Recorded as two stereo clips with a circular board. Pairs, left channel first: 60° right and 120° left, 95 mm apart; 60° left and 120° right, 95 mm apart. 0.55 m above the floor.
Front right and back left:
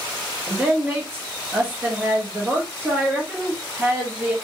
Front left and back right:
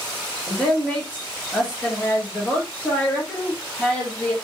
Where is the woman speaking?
105° left, 1.1 m.